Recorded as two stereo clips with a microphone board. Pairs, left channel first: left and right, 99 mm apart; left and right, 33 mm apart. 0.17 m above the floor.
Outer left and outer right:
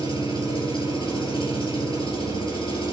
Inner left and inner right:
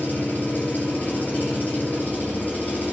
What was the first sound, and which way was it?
An engine running, 55° left (ahead or behind).